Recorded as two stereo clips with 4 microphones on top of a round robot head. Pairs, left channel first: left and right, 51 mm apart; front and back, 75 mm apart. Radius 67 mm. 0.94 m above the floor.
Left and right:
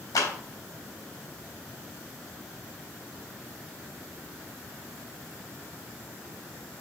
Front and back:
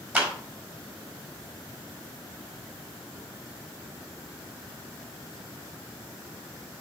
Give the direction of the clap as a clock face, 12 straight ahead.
8 o'clock.